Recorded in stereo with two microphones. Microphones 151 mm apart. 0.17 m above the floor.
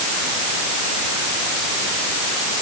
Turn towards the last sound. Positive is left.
No sound to turn to.